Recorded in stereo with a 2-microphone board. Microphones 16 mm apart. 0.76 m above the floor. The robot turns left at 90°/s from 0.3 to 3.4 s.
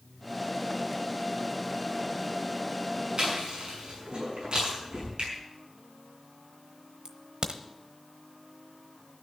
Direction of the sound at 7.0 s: 65° right (ahead or behind).